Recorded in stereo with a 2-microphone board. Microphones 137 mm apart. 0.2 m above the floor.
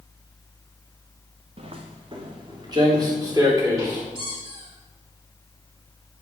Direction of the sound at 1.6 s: 45° right (ahead or behind).